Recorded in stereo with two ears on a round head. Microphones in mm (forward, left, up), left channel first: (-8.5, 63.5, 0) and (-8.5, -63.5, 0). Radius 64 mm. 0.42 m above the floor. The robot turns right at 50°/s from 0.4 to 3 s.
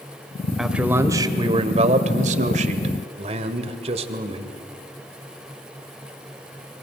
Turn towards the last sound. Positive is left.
turn(degrees=-55)